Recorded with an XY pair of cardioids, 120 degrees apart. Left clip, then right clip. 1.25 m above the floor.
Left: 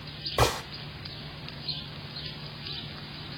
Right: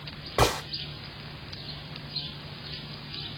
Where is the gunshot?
10° right, 1.9 m.